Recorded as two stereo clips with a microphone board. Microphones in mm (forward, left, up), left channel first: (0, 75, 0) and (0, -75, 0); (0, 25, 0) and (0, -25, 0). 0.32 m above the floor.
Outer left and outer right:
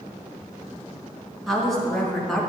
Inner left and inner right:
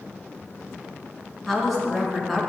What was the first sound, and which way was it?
A woman speaking, centre (ahead or behind).